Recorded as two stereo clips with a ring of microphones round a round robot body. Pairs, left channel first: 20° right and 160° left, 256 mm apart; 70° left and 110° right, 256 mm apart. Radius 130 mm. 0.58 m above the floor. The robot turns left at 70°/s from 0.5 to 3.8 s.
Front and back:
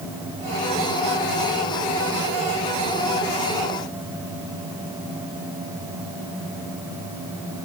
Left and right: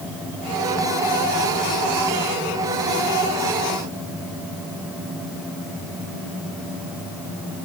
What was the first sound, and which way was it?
Only background noise.